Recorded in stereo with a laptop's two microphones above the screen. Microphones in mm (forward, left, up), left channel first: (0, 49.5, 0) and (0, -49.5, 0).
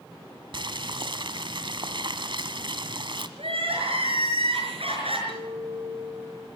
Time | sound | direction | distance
0.5 | boiling | 55° right (ahead or behind) | 1.4 m
3.4 | crying | 75° right (ahead or behind) | 5.5 m
5.3 | a clink | 80° right | 1.7 m